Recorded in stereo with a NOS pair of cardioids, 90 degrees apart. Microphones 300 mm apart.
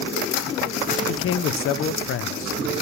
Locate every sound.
1.1 s a man speaking: 50° left, 0.5 m